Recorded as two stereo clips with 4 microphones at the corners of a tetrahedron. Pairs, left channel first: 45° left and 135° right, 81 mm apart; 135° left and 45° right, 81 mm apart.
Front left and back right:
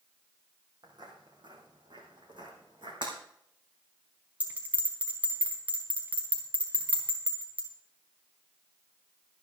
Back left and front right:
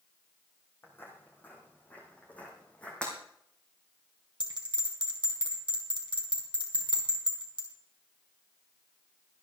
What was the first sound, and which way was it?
Footsteps, 165° right.